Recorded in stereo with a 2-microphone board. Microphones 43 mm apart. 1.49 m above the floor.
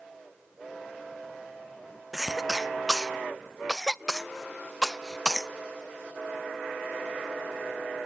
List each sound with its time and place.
2.1 s a cough: centre (ahead or behind), 0.6 m